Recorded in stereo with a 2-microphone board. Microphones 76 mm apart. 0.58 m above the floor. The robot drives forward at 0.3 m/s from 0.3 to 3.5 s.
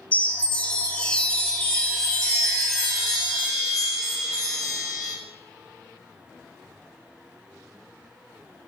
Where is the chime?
20° left (ahead or behind), 0.6 m; by 5.1 s 5° left (ahead or behind), 1.5 m.